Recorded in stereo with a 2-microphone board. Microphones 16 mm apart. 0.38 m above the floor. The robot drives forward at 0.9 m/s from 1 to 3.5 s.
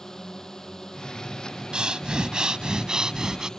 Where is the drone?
35° left (ahead or behind); by 3.6 s 40° left (ahead or behind).